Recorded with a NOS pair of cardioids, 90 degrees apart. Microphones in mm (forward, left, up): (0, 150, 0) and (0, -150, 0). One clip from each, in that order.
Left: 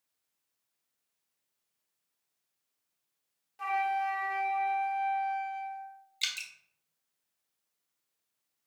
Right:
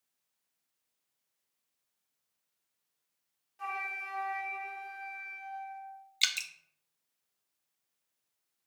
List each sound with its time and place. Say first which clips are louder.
3.6 s a flute: left 7 dB; 30° left, 1.1 m
6.2 s dripping: right 4 dB; 25° right, 0.5 m